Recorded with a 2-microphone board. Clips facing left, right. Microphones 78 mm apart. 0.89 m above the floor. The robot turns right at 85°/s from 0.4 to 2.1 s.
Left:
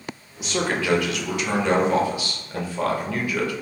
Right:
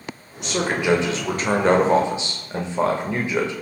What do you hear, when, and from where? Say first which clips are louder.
0.4 s a man speaking: right 2 dB; 175° left, 0.5 m; by 3.5 s 40° right, 0.5 m